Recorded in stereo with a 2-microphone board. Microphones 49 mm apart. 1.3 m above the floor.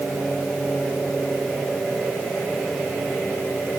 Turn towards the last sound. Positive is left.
No sound to turn to.